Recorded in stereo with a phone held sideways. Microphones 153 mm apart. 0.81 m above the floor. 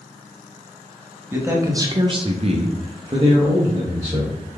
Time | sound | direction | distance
1.3 | a man speaking | 15° right (ahead or behind) | 0.9 m